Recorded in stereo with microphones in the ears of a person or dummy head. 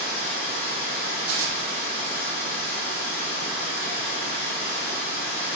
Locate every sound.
0.0 s running water: 65° left (ahead or behind), 1.6 m
1.3 s tearing paper: 55° right (ahead or behind), 0.6 m